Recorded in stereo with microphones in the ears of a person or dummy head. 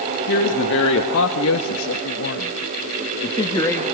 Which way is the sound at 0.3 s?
65° left (ahead or behind).